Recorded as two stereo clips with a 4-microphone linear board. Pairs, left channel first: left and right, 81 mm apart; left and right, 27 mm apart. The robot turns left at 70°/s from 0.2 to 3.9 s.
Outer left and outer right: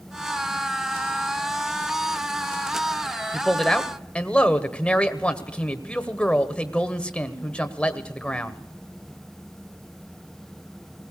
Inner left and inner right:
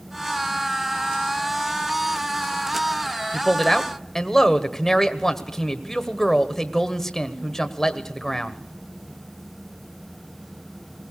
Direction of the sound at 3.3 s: 165° right.